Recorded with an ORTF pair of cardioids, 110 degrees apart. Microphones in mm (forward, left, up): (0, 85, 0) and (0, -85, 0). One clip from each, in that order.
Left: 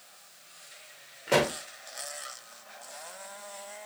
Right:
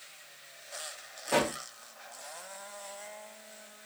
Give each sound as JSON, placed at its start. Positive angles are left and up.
{"t": 1.3, "sound": "a pop", "azimuth_deg": 60, "distance_m": 1.2}